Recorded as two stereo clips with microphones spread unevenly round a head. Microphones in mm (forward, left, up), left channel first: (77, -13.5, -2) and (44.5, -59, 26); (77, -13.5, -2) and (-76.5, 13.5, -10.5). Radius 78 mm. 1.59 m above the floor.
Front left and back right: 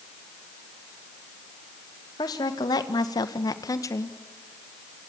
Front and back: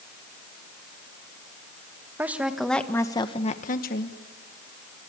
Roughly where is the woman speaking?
Left.